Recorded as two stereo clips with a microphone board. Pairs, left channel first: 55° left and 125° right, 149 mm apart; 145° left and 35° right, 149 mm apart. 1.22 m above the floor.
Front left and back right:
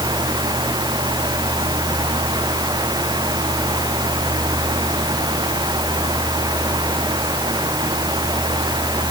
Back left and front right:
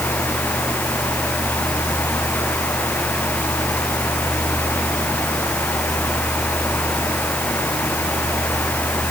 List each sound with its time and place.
Only background noise.